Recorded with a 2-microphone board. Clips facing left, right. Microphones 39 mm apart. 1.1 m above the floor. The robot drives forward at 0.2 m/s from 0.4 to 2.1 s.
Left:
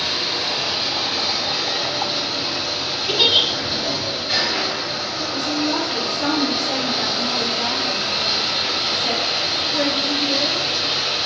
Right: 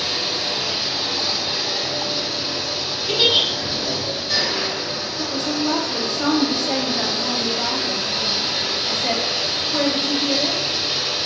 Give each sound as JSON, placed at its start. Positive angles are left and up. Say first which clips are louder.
{"t": 0.0, "sound": "running water", "louder": "left 1 dB", "side_deg": 35, "distance_m": 0.7}
{"t": 3.1, "sound": "a giggle", "louder": "left 1 dB", "side_deg": 15, "distance_m": 0.7}
{"t": 5.2, "sound": "a woman speaking", "louder": "even", "side_deg": -65, "distance_m": 1.1}